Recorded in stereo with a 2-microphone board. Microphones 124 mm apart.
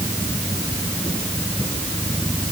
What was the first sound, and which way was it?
Only background noise.